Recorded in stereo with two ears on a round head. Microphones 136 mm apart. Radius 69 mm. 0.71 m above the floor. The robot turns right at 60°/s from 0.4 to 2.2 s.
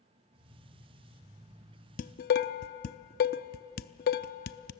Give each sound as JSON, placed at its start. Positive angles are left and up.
{"t": 2.0, "sound": "dishes clattering", "side_deg": 50, "distance_m": 0.5}